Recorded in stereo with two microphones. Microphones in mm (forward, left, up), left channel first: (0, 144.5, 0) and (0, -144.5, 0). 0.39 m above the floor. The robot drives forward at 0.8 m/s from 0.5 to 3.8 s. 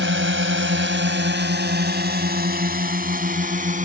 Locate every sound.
0.0 s a drone: 45° right (ahead or behind); by 3.9 s 25° right (ahead or behind)